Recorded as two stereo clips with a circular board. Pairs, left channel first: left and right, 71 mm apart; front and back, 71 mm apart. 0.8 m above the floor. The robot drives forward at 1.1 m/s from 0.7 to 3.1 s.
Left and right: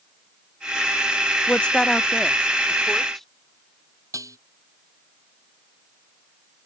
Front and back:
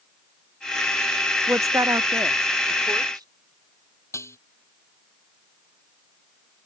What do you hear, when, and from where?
1.5 s a woman speaking: 150° left; by 3.3 s 175° left
4.1 s dishes clattering: 50° right